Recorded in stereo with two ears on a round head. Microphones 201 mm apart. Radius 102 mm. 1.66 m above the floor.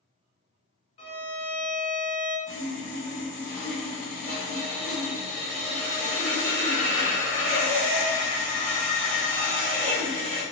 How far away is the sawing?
About 1.9 m.